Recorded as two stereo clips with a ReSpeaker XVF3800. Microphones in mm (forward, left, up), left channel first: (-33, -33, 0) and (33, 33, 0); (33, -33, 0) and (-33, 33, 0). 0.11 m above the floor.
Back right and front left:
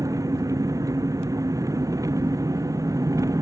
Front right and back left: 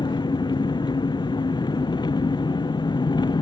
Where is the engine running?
5° right.